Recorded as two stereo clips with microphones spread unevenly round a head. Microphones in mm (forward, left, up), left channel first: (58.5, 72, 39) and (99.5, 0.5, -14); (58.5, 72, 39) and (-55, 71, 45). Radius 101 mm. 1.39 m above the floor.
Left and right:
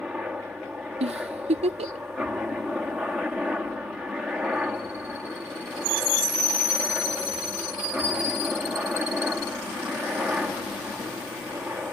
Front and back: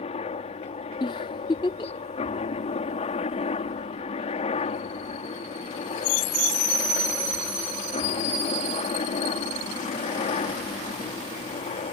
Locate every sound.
0.0 s a helicopter: 20° left
1.0 s a giggle: 50° right